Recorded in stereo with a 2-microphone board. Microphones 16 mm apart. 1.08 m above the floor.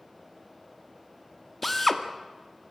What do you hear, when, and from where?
1.6 s a drill: 10° left (ahead or behind), 1.6 m